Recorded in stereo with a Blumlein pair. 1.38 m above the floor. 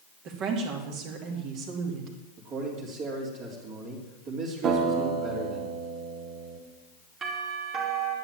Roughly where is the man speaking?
Ahead right.